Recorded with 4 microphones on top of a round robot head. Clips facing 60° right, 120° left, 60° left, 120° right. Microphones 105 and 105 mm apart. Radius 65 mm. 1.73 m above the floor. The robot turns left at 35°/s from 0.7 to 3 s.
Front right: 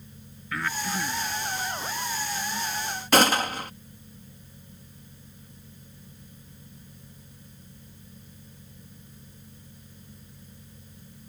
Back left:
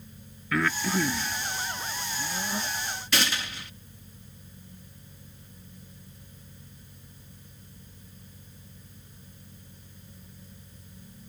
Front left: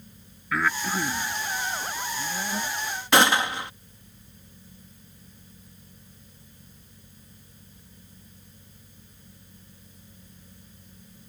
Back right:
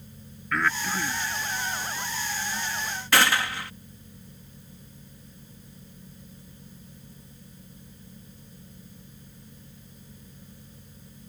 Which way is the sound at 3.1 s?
10° right.